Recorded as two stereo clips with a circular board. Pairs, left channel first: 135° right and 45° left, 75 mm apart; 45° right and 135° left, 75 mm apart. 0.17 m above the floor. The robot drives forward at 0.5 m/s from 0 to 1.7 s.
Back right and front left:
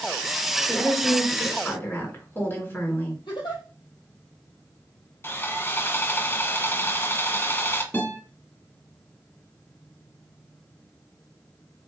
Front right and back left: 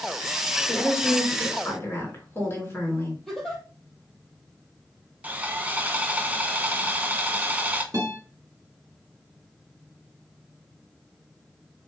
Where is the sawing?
170° right, 0.7 m.